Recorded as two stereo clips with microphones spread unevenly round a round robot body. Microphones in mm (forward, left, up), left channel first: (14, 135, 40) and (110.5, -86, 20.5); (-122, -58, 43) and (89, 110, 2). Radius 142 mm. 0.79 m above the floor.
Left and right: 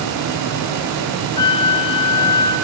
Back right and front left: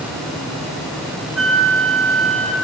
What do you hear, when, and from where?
1.4 s a flute: 125° left, 4 m